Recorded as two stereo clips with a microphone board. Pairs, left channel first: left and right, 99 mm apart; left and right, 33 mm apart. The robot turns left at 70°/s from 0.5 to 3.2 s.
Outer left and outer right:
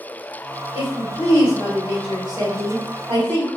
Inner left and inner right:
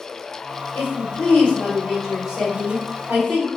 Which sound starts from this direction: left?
A woman speaking, at 0.8 s.